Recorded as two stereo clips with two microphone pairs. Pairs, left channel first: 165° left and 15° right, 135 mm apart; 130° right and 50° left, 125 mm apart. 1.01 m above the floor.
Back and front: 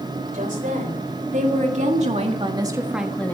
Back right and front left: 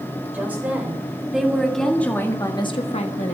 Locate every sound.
0.3 s a woman speaking: 25° right, 3.5 m; by 3.3 s 120° right, 1.4 m